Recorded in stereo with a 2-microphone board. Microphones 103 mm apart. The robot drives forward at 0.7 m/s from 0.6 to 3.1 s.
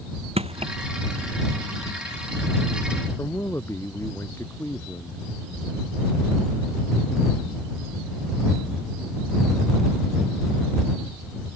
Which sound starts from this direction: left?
A man speaking, at 3.2 s.